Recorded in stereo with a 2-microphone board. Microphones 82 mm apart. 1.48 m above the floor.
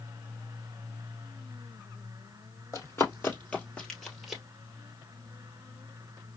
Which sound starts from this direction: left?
Running footsteps, at 2.7 s.